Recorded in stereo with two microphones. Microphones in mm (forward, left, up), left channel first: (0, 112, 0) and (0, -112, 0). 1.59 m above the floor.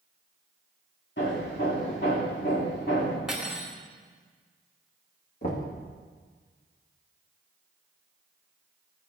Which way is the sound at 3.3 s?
5° right (ahead or behind).